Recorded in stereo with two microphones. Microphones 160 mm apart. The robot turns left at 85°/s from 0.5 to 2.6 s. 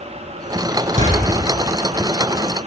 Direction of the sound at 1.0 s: 50° right (ahead or behind).